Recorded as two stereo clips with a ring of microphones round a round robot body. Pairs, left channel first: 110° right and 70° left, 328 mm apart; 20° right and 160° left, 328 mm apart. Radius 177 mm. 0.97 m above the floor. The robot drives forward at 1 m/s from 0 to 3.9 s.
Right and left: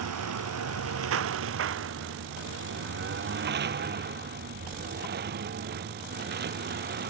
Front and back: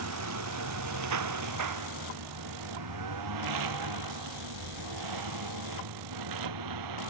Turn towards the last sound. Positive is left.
turn(degrees=130)